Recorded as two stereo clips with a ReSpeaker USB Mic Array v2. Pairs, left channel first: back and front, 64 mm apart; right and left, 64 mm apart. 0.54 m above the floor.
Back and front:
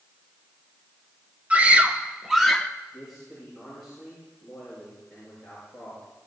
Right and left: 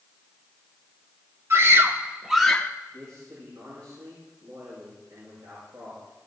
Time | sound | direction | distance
1.5 | a scream | 60° left | 1.2 m
2.9 | a man speaking | 90° left | 7.5 m